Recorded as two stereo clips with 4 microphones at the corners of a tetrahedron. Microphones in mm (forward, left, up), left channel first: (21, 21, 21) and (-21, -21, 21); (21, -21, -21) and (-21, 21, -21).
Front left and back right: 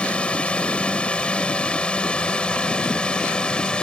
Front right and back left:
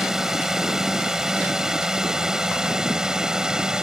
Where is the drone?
65° left; by 3.8 s 80° left.